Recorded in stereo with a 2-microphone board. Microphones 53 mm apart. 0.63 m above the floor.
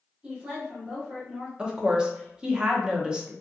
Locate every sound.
0.2 s a woman speaking: 20° right (ahead or behind), 1.4 m
1.6 s a woman speaking: 15° right (ahead or behind), 0.6 m